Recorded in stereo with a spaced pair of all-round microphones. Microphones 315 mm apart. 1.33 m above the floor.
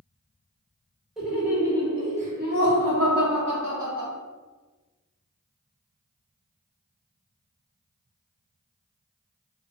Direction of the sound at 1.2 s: Centre (ahead or behind).